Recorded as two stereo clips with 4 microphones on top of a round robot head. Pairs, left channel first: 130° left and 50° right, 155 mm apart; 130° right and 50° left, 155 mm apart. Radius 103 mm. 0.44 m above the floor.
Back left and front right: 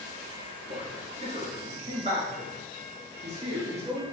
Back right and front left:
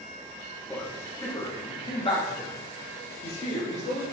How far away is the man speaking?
About 1.2 m.